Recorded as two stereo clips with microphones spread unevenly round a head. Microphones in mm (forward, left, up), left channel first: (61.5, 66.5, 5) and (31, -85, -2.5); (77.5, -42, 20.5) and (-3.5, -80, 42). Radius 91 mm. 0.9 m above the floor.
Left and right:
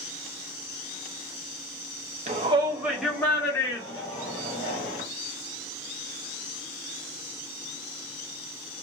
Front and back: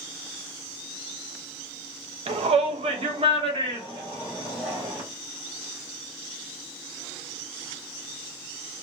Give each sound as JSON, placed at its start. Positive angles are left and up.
{"t": 2.3, "sound": "a shout", "azimuth_deg": -145, "distance_m": 0.6}